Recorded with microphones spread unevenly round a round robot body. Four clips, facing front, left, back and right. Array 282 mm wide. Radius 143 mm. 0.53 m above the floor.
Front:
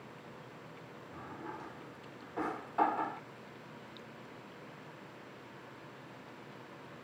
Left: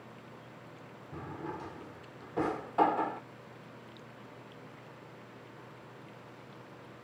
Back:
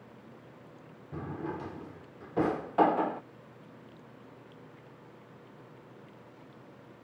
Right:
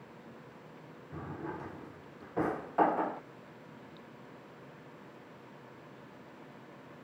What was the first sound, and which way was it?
A drawer, straight behind.